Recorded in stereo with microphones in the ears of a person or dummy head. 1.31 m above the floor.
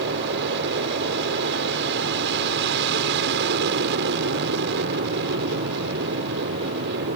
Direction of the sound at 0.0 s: 60° right (ahead or behind).